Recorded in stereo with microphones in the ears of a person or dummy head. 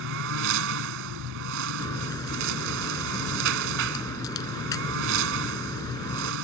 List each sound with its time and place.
0.0 s a lawn mower: 70° right (ahead or behind)
1.8 s a crack: 20° left (ahead or behind)